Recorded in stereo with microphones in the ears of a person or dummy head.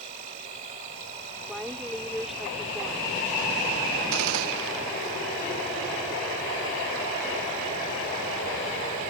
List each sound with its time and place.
0.0 s an insect: 40° right (ahead or behind)
1.5 s a woman speaking: 5° right (ahead or behind)
4.1 s a gunshot: 80° right